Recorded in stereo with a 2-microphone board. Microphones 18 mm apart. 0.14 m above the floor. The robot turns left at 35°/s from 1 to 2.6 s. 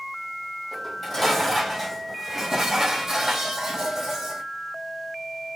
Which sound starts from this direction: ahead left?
Dishes clattering, at 0.7 s.